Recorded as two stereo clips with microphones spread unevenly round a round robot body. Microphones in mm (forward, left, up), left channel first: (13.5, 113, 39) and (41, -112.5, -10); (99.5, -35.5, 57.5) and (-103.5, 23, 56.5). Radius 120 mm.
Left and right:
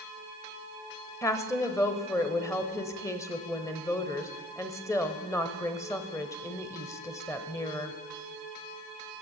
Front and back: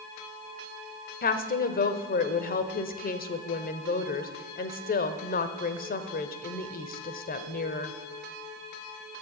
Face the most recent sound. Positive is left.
turn(degrees=15)